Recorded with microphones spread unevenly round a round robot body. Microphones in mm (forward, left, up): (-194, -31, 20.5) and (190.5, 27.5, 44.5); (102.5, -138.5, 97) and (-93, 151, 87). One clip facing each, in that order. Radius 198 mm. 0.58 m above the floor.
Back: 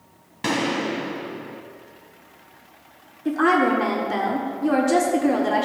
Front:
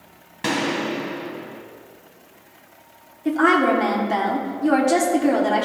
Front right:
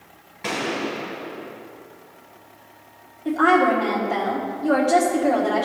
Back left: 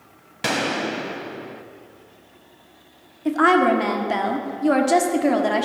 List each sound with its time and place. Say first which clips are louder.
0.4 s a gunshot: even, back left 1 dB; 95° left, 0.5 m
3.2 s a woman speaking: front 1 dB, back left 1 dB; 95° left, 1.4 m